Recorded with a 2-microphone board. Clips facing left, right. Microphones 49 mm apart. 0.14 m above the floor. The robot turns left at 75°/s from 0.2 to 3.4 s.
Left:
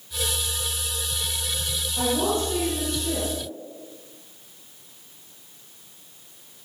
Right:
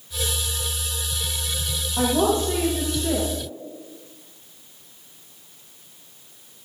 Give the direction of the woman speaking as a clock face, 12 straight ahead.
1 o'clock.